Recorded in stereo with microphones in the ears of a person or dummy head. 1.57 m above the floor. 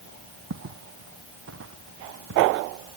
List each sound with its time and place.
0.5 s footsteps: 55° right (ahead or behind); by 2.7 s 70° right (ahead or behind)